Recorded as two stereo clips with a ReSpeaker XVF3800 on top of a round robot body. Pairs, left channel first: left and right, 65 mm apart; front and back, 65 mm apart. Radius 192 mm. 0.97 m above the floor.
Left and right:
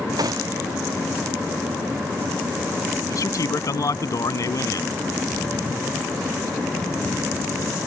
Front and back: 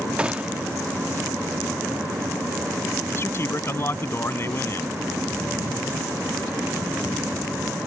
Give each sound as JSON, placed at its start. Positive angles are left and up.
{"t": 0.2, "sound": "a gunshot", "azimuth_deg": -105}
{"t": 3.1, "sound": "a man speaking", "azimuth_deg": 55}